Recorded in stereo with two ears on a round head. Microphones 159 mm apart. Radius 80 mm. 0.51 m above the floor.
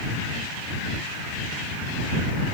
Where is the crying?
No crying in this recording.